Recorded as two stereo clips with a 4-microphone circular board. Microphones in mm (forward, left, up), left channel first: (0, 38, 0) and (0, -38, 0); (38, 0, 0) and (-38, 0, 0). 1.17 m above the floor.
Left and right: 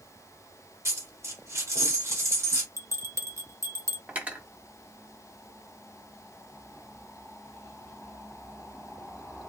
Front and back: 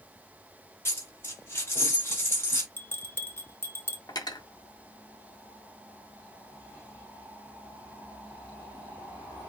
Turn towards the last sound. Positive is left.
turn(degrees=-20)